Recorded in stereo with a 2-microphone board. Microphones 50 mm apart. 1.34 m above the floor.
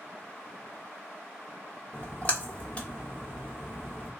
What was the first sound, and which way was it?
A splash, 25° left (ahead or behind).